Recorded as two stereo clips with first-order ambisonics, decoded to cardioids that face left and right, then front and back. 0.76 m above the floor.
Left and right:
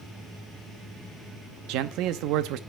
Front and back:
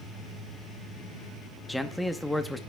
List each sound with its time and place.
1.7 s a man speaking: 90° right, 0.7 m